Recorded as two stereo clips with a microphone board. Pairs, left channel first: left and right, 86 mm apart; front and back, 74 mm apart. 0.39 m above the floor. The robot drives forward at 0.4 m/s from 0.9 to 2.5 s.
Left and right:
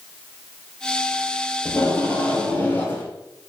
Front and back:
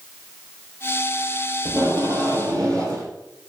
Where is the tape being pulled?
150° left, 1.4 m; by 3.1 s 155° left, 1.7 m.